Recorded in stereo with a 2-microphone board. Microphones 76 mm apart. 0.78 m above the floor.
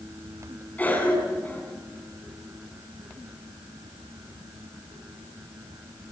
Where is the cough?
20° left (ahead or behind), 6.5 m.